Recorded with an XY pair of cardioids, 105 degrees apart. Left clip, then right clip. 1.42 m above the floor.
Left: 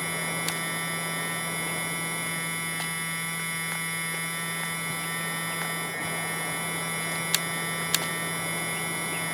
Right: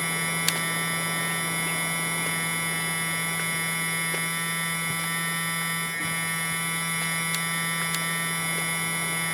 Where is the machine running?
25° right.